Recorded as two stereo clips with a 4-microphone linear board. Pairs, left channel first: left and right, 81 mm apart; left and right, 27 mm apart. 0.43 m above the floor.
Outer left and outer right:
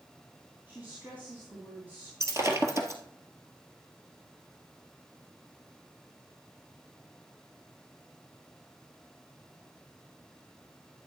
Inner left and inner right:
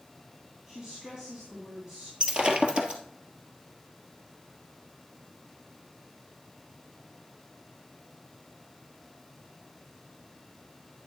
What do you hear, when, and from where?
0.7 s a woman speaking: 25° right (ahead or behind), 3.5 m
2.2 s breaking glass: 35° right (ahead or behind), 1.5 m